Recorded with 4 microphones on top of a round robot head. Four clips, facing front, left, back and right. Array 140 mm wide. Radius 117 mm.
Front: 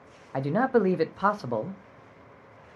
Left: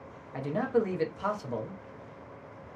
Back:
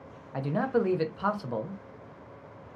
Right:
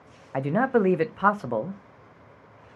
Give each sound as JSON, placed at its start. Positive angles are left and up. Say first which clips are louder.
{"t": 0.3, "sound": "a man speaking", "louder": "right 6 dB, front 4 dB", "azimuth_deg": -60, "distance_m": 0.6}